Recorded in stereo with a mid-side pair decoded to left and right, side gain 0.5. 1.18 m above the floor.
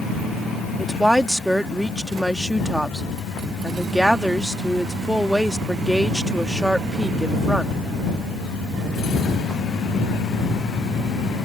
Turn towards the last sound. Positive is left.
turn(degrees=-10)